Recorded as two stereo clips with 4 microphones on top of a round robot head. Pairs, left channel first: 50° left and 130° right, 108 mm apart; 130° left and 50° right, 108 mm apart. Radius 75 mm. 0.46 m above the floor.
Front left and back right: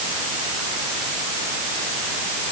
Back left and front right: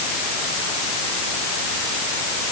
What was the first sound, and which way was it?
Only background noise.